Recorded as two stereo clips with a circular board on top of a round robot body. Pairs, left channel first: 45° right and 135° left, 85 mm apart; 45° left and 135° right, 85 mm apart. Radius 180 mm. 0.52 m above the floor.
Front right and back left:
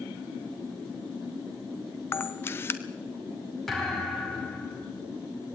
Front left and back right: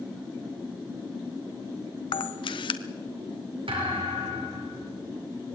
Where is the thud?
135° right, 5.5 m.